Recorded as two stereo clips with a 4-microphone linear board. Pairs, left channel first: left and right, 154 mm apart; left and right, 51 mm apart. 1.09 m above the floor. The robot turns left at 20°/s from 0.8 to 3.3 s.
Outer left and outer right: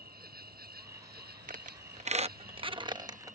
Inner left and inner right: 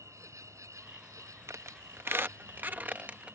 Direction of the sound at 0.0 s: 75° right.